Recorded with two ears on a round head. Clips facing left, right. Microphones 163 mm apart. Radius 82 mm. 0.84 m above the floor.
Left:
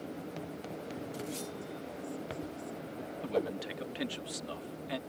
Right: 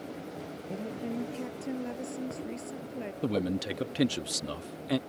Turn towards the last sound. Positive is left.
turn(degrees=-55)  # may be behind; listen again after turning